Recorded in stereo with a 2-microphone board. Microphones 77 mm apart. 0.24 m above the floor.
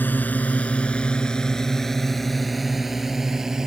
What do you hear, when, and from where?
0.0 s a drone: 25° left (ahead or behind); by 3.7 s 10° right (ahead or behind)